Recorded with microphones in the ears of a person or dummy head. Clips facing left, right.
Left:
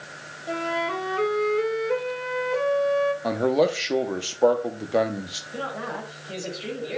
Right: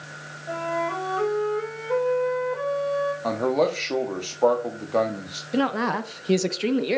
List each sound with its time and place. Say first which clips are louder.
0.5 s a flute: even; 30° left (ahead or behind), 1.2 m
3.2 s a man speaking: even; 15° left (ahead or behind), 0.6 m
5.5 s a woman speaking: right 9 dB; 80° right, 0.6 m